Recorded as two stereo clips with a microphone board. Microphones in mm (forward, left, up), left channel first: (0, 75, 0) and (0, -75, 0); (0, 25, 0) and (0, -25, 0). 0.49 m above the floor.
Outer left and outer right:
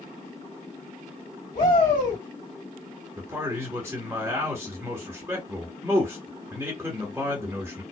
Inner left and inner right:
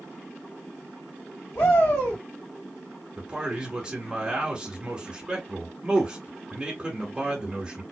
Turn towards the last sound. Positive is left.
turn(degrees=-15)  # may be behind; listen again after turning